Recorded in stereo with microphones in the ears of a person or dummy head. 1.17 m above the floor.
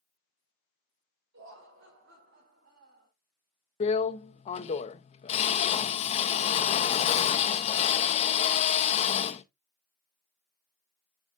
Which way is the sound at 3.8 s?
35° left (ahead or behind).